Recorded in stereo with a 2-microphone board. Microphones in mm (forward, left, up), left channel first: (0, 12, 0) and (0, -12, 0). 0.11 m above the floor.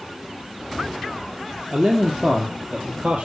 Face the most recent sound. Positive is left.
turn(degrees=-65)  # may be behind; listen again after turning